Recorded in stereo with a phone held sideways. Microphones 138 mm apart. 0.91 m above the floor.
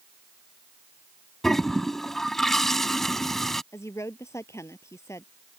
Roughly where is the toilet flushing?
Centre.